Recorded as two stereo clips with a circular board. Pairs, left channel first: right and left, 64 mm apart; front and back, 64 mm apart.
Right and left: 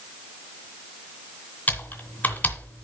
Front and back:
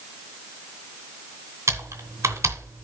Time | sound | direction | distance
1.7 | typing on a keyboard | 150° right | 2 m